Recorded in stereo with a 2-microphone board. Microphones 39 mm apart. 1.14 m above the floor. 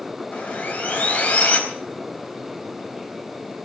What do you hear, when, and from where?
0.3 s sawing: 35° left (ahead or behind), 4.5 m